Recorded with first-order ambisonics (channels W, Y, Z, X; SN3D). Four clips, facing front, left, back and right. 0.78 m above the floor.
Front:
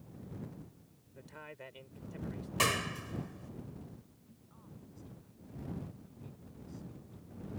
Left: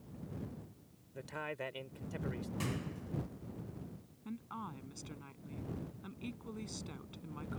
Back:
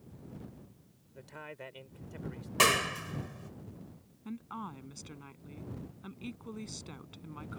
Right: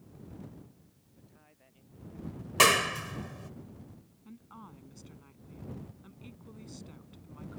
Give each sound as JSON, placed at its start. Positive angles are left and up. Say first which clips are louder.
{"t": 1.1, "sound": "a man speaking", "louder": "left 20 dB, back 3 dB", "azimuth_deg": 100}
{"t": 2.6, "sound": "a clap", "louder": "right 23 dB, back 5 dB", "azimuth_deg": -110}
{"t": 4.2, "sound": "a woman speaking", "louder": "left 6 dB, back 17 dB", "azimuth_deg": 160}